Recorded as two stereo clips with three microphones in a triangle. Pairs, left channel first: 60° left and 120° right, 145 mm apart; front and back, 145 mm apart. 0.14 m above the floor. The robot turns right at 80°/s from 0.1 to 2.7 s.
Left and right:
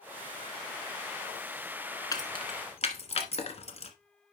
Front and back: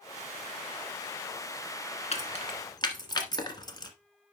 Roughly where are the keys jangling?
Ahead.